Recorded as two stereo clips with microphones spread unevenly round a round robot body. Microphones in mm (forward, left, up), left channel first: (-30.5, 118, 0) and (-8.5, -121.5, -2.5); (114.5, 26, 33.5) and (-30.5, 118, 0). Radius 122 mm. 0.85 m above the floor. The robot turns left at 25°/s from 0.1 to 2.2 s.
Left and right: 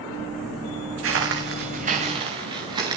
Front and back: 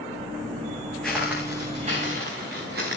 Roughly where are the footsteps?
Behind right.